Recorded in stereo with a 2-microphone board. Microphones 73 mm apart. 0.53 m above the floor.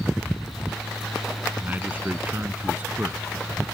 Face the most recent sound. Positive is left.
turn(degrees=-25)  # may be behind; listen again after turning